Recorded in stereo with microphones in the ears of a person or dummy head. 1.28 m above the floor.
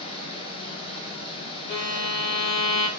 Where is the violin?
65° left (ahead or behind), 1.9 m.